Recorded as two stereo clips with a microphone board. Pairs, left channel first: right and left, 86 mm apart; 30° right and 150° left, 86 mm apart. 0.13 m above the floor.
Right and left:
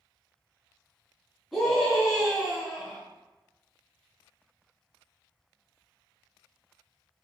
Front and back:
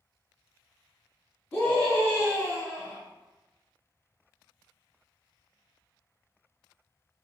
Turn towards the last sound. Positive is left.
turn(degrees=0)